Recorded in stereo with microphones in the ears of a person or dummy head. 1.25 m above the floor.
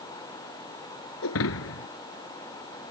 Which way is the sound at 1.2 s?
75° left (ahead or behind).